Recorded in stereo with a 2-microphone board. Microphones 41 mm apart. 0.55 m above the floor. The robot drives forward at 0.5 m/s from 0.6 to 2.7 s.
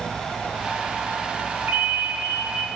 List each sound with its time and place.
1.7 s a ringtone: 65° right (ahead or behind), 2.5 m; by 2.7 s 55° right (ahead or behind), 3 m